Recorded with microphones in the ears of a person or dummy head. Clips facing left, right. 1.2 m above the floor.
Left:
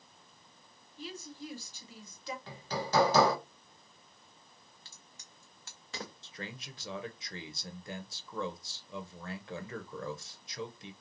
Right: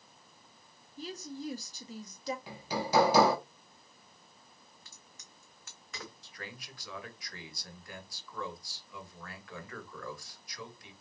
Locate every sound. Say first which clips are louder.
1.0 s a woman speaking: right 4 dB; 30° right (ahead or behind), 0.9 m
2.5 s hammering: even; 10° right (ahead or behind), 1.0 m
4.8 s a crack: right 1 dB; 30° left (ahead or behind), 0.9 m
6.2 s a man speaking: left 3 dB; 25° left (ahead or behind), 0.7 m